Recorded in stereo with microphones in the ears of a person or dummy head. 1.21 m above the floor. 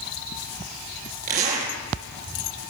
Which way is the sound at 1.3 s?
45° right (ahead or behind).